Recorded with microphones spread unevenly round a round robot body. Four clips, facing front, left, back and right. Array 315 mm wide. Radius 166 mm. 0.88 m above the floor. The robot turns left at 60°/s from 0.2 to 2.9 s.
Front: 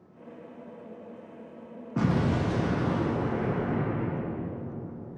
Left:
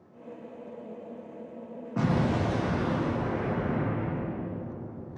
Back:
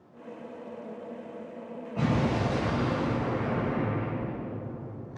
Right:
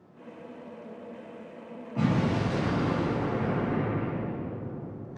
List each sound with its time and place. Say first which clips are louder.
2.0 s an explosion: even, front 1 dB; 30° left, 0.6 m; by 5.2 s 25° right, 0.6 m